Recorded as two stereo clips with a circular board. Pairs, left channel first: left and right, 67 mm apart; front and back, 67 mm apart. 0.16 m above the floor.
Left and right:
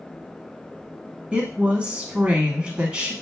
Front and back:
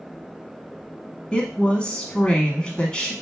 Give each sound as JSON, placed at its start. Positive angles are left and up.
{"t": 1.3, "sound": "a woman speaking", "azimuth_deg": -50, "distance_m": 1.1}